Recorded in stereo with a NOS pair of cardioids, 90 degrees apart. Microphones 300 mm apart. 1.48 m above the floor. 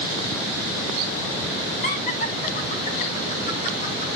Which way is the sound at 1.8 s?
25° left.